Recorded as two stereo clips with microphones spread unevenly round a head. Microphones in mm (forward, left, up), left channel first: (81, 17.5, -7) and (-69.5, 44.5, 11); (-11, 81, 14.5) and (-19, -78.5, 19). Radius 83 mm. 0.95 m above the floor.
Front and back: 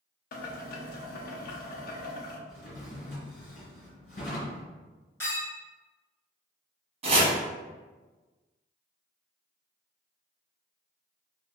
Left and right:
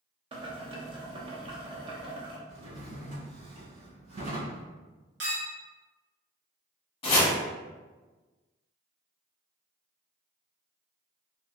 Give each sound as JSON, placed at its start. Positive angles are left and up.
{"t": 0.3, "sound": "boiling", "azimuth_deg": -40, "distance_m": 0.5}
{"t": 2.5, "sound": "a drawer", "azimuth_deg": -55, "distance_m": 1.7}
{"t": 5.2, "sound": "a clink", "azimuth_deg": -85, "distance_m": 1.4}
{"t": 7.0, "sound": "chopping", "azimuth_deg": 130, "distance_m": 1.0}